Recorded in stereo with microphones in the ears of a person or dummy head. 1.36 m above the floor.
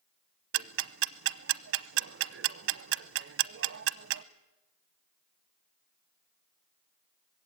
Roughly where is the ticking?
Right.